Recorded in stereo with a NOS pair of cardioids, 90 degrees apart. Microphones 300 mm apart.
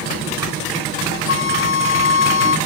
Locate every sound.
1.3 s a flute: 45° left